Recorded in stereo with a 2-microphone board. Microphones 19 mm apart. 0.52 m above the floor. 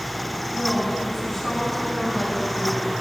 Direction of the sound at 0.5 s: 20° left (ahead or behind).